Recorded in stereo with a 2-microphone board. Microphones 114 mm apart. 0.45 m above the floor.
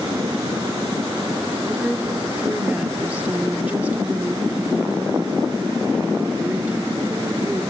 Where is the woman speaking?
15° right (ahead or behind), 1.3 m.